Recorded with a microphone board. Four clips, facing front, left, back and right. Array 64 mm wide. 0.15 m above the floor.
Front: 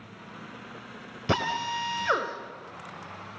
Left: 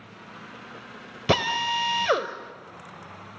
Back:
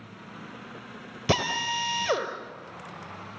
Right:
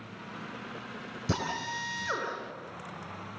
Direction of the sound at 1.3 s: 110° left.